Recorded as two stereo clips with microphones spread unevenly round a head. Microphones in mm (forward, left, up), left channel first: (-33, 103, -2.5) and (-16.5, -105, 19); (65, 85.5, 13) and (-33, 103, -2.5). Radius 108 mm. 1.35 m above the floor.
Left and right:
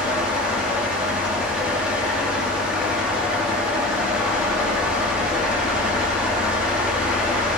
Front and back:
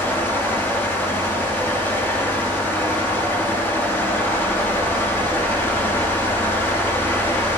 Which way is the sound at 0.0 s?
15° right.